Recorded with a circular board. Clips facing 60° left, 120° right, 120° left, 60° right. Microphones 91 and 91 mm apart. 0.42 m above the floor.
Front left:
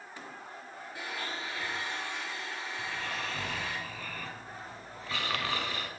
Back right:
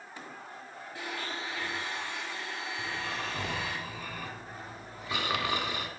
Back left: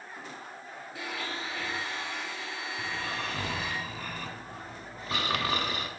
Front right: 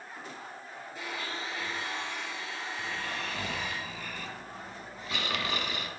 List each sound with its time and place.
0.9 s a blender: 125° left, 3.5 m
2.8 s snoring: 170° left, 0.8 m